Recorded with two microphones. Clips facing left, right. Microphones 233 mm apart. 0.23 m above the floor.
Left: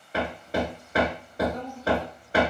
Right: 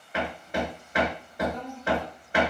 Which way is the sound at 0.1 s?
35° left (ahead or behind).